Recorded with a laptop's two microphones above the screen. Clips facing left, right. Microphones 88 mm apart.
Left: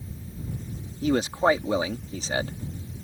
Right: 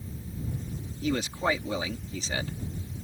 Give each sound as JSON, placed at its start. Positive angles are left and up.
{"t": 1.0, "sound": "a man speaking", "side_deg": 40}